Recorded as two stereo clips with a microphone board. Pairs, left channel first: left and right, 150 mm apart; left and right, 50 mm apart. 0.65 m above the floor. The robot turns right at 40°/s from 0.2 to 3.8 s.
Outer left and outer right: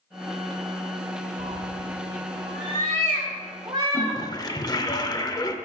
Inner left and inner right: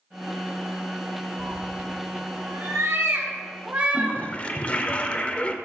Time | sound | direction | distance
1.4 | a cat meowing | 55° right (ahead or behind) | 1.3 m
3.9 | a toilet flushing | 25° left (ahead or behind) | 0.5 m